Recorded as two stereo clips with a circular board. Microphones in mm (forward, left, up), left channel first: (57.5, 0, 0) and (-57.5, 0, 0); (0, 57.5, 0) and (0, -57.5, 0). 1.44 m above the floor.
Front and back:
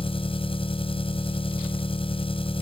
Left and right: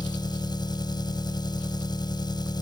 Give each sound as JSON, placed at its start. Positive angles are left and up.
{"t": 0.0, "sound": "an engine running", "azimuth_deg": 40}